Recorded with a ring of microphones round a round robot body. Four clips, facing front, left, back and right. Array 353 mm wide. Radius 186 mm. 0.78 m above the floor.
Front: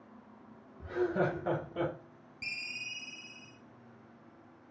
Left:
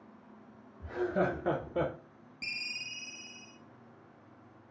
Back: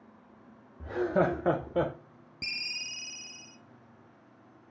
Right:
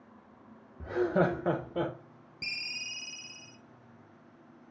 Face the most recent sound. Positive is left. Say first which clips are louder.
# right 1 dB, back 2 dB
turn(degrees=-160)